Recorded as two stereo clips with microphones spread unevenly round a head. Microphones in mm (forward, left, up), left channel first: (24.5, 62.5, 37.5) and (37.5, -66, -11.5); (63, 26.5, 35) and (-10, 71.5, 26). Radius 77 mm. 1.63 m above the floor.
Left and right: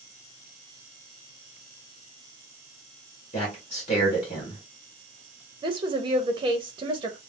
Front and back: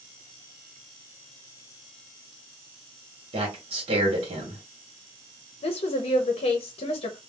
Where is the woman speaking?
20° right, 0.6 m.